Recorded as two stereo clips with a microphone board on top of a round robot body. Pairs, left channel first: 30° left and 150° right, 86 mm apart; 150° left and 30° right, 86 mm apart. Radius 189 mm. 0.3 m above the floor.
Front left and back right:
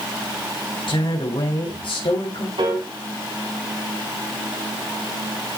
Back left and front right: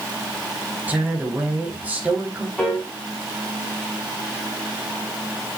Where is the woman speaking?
40° left, 3.5 m.